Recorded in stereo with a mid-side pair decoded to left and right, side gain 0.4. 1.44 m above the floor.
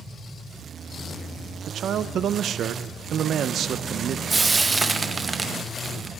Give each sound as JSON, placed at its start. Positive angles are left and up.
{"t": 1.7, "sound": "a man speaking", "azimuth_deg": -70, "distance_m": 0.9}
{"t": 4.3, "sound": "frying", "azimuth_deg": -25, "distance_m": 1.2}